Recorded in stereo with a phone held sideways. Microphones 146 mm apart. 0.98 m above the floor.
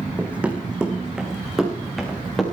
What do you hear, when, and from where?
0.2 s running footsteps: 10° right (ahead or behind), 3 m; by 2.4 s centre (ahead or behind), 5 m